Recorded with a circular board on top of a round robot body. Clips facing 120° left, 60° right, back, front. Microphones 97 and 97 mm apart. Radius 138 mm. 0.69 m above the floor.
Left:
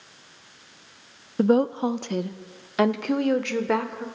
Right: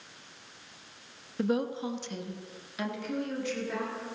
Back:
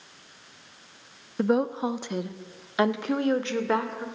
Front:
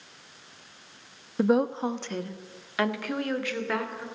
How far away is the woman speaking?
About 1.0 m.